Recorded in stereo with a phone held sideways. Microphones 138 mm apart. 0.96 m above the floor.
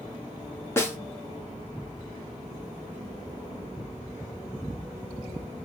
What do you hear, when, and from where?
0.8 s a snare drum: 20° left (ahead or behind), 1.1 m